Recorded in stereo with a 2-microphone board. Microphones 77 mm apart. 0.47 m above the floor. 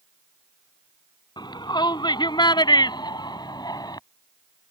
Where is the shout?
70° left (ahead or behind); by 4.0 s 60° left (ahead or behind).